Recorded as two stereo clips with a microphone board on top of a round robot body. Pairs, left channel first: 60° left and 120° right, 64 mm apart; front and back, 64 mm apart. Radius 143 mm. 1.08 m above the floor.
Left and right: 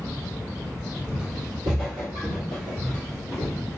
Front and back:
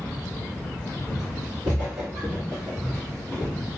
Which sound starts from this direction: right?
Footsteps, at 1.1 s.